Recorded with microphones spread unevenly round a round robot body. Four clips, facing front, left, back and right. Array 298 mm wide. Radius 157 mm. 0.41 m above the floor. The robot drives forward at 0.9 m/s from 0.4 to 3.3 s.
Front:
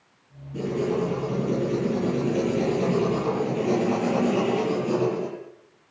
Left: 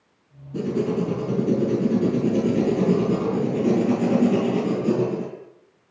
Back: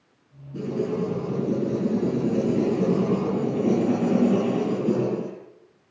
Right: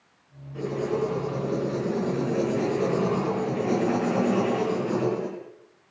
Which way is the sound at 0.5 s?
100° left.